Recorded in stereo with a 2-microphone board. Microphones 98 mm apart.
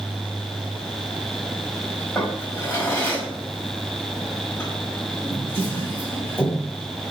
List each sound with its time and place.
2.1 s a drawer: 25° left (ahead or behind), 1.5 m